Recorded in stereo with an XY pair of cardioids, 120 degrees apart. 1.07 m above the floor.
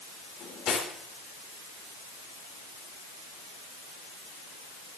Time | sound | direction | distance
0.4 | cutlery clinking | 65° left | 1.8 m